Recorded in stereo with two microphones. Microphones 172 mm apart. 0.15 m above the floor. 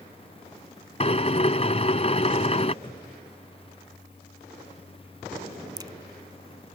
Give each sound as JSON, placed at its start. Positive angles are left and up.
{"t": 1.0, "sound": "a drill", "side_deg": 40}
{"t": 2.8, "sound": "a cupboard door", "side_deg": 30}
{"t": 5.8, "sound": "a crack", "side_deg": -25}